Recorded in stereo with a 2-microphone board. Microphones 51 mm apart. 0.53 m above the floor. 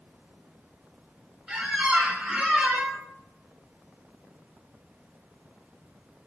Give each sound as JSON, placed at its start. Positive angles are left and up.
{"t": 1.5, "sound": "a squeak", "side_deg": -15, "distance_m": 0.5}